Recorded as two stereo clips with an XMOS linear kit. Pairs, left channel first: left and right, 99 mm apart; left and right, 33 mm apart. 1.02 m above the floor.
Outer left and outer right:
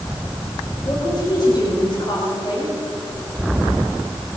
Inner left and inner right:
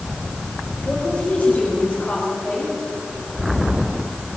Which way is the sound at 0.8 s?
45° left (ahead or behind).